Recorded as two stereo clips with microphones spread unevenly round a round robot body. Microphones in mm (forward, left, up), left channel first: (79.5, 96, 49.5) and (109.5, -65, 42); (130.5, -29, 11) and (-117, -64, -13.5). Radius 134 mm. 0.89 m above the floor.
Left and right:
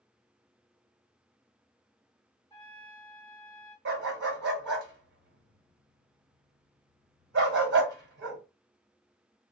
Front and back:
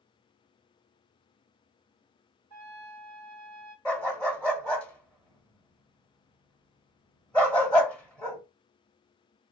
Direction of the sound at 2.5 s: 160° right.